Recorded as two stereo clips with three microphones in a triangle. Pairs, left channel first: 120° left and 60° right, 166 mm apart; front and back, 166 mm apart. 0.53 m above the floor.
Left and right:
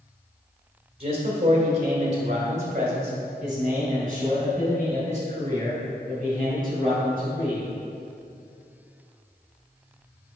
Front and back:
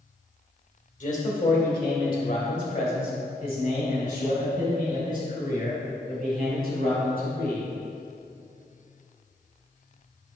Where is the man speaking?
15° right, 2 m; by 7.6 s 25° right, 5.5 m.